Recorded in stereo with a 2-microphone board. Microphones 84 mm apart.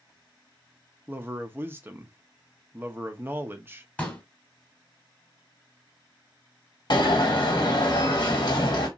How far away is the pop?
About 1.2 m.